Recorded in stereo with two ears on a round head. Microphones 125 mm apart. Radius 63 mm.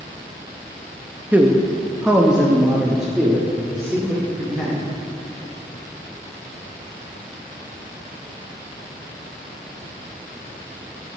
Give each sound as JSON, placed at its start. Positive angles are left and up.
{"t": 1.3, "sound": "a man speaking", "side_deg": -10, "distance_m": 0.7}